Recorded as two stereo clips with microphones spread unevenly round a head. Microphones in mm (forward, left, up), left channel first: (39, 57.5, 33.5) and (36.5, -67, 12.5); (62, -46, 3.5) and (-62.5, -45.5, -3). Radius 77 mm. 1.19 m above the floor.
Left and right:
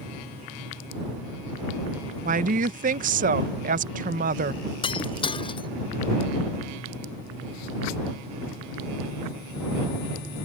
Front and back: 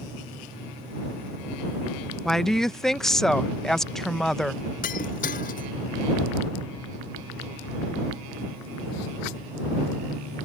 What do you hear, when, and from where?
2.2 s a woman speaking: 85° right
4.8 s breaking glass: 40° left